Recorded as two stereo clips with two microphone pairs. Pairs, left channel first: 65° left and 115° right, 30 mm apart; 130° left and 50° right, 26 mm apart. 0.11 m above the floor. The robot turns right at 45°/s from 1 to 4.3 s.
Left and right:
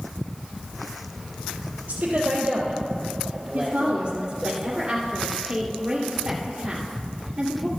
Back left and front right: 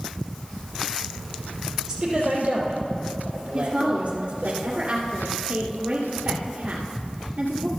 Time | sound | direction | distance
1.9 | a woman speaking | 110° right | 2.5 m
3.5 | a woman speaking | 90° right | 1.7 m